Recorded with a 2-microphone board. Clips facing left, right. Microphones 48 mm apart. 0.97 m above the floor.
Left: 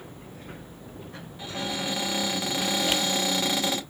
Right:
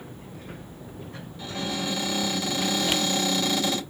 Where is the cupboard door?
25° left (ahead or behind), 1.9 m.